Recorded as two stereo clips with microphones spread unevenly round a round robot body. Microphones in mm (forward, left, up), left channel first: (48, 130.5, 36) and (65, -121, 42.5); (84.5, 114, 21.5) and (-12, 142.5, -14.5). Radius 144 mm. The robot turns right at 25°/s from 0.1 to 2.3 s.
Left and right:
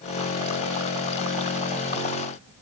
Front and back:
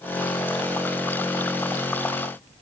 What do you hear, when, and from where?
Only background noise.